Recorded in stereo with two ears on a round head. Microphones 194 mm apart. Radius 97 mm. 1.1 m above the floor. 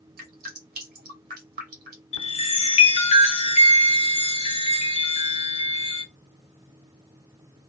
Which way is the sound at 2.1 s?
30° left (ahead or behind).